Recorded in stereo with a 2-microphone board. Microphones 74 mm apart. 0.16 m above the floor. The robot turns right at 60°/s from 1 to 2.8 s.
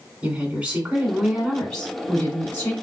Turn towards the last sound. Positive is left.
turn(degrees=75)